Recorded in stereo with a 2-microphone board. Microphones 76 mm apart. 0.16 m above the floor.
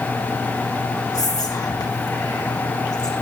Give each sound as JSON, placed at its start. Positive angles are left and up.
{"t": 1.1, "sound": "whispering", "side_deg": 55, "distance_m": 8.0}